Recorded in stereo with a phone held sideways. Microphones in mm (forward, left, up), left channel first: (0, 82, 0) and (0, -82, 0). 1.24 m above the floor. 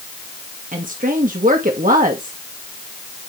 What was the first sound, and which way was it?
A woman speaking, 55° right (ahead or behind).